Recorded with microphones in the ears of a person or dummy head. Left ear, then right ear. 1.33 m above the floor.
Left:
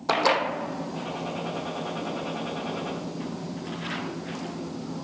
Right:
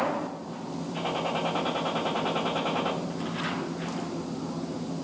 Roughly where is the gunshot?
Right.